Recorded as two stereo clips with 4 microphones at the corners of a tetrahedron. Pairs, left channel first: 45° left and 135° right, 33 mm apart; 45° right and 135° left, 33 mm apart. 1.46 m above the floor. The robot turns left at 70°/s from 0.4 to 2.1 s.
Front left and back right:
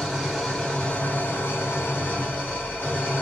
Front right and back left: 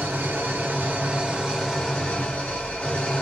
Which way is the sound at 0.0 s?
125° left.